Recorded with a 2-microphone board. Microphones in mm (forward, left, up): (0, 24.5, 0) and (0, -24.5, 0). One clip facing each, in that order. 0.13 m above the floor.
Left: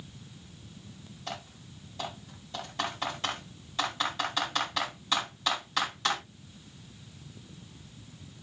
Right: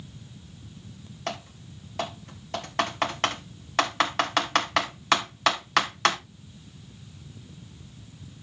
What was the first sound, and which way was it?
Typing on a keyboard, 65° right (ahead or behind).